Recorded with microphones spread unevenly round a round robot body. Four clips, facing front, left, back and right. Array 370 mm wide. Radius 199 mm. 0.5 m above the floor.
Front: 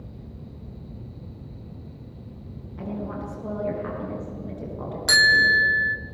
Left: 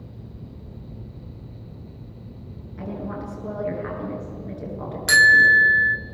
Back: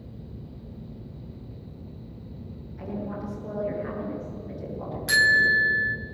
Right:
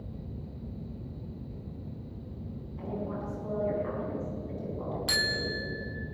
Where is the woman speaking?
40° left, 9 m.